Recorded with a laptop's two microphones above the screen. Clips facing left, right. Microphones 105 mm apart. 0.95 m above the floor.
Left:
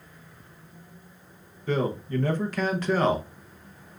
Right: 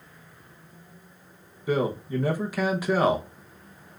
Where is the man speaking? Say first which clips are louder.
Right 1 dB; 10° right (ahead or behind), 0.9 m.